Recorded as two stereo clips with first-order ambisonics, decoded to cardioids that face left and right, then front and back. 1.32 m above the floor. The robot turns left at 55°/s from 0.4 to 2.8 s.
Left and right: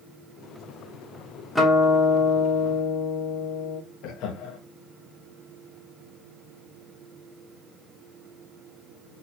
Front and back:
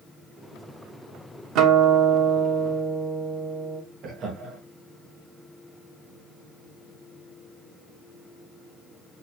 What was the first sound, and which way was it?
A guitar, 170° left.